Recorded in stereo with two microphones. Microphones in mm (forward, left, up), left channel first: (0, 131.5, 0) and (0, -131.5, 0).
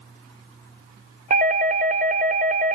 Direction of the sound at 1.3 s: 30° right (ahead or behind).